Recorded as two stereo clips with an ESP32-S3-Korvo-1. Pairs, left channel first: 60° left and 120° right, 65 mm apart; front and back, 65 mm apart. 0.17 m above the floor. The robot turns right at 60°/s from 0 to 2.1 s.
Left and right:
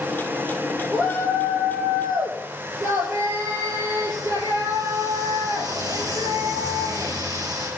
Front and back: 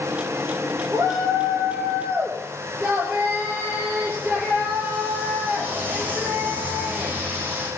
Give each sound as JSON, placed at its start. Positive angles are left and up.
{"t": 0.9, "sound": "a shout", "azimuth_deg": 175, "distance_m": 4.0}